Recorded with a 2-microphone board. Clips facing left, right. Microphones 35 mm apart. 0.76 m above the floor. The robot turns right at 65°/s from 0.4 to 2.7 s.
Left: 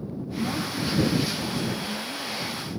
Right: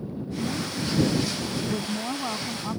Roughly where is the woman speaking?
Behind left.